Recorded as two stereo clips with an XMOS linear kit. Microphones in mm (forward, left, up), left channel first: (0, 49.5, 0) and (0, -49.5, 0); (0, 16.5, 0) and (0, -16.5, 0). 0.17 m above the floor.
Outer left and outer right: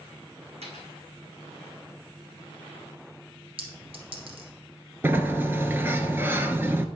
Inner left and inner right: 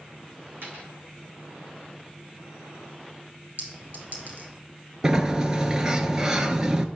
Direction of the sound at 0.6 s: 80° right.